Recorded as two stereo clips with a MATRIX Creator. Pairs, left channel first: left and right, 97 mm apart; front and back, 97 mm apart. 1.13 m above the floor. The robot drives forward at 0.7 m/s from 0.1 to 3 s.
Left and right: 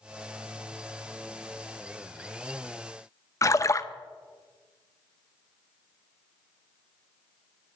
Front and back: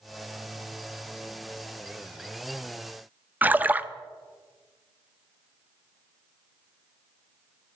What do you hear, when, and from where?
3.4 s a splash: 120° left, 0.6 m